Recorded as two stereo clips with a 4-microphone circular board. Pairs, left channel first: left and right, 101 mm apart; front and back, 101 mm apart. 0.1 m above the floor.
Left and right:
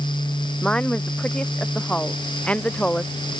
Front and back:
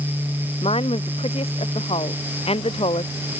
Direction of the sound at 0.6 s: 10° left.